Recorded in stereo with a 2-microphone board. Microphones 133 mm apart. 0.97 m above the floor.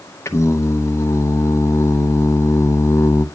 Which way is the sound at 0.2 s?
20° left (ahead or behind).